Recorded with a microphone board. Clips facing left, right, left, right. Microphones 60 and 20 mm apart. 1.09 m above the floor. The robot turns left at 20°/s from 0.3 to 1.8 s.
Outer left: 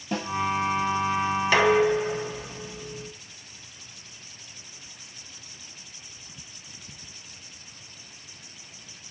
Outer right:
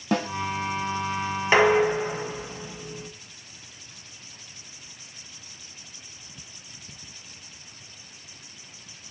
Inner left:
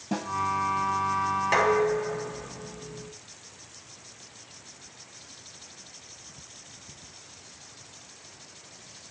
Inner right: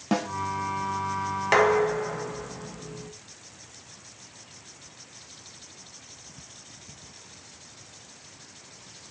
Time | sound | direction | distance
0.1 | a snare drum | 65° right (ahead or behind) | 1.2 m
1.5 | dishes clattering | 25° right (ahead or behind) | 1.0 m